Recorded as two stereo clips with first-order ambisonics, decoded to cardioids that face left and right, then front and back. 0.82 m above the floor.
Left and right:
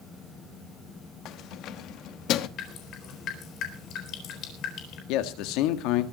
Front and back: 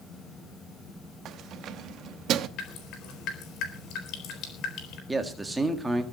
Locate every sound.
1.2 s keys jangling: 130° left, 0.8 m
2.6 s dripping: 40° left, 5 m
5.1 s a man speaking: 100° left, 1.7 m